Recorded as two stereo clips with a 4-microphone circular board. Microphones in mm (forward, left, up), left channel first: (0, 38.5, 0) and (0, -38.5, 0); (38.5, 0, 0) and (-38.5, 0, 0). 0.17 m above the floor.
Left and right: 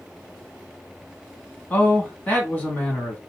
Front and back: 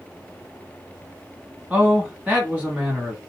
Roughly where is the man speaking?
Behind left.